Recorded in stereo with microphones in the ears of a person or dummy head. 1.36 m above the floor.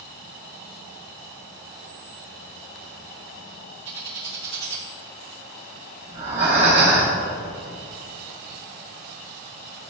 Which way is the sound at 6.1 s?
45° right (ahead or behind).